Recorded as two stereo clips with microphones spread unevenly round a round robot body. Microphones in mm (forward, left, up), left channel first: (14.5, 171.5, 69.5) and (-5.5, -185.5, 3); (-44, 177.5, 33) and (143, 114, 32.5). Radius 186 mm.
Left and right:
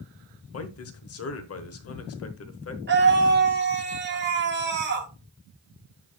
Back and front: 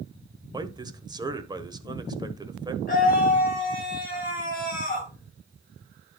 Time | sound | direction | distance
0.5 | a man speaking | 40° left | 1.3 m
2.9 | a scream | 145° right | 3 m